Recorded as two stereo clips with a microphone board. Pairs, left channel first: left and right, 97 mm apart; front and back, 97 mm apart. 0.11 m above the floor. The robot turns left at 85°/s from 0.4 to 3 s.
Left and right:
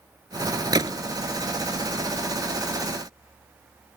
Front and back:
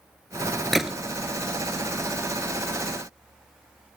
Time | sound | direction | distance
0.7 | a gunshot | 85° right | 0.7 m